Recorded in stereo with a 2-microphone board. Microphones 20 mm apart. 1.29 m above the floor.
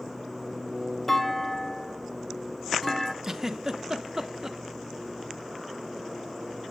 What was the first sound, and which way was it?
A clunk, 5° left (ahead or behind).